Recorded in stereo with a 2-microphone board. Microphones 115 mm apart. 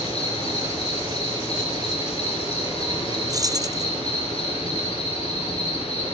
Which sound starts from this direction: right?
Keys jangling, at 3.3 s.